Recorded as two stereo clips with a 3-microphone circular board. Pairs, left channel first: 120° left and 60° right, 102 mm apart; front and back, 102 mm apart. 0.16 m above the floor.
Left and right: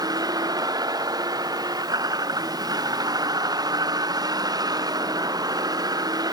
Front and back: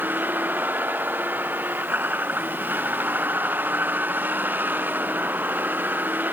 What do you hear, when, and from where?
0.0 s a vehicle: 110° right